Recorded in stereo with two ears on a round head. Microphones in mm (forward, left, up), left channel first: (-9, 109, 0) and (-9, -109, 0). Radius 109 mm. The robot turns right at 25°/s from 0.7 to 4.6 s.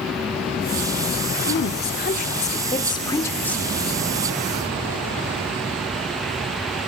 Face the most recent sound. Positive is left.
turn(degrees=-160)